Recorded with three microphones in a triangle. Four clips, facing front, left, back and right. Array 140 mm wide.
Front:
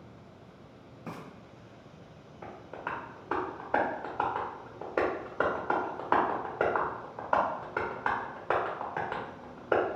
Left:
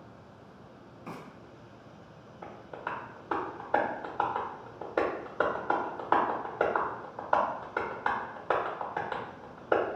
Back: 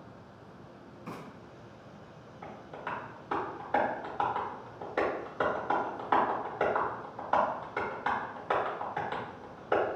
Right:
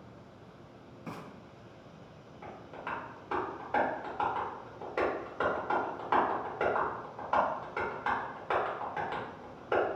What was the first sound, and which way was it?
Frying, 5° left.